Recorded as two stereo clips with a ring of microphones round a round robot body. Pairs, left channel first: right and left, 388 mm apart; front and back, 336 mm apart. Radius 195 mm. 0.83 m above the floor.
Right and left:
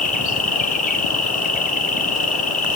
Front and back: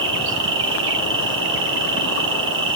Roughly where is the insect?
Behind right.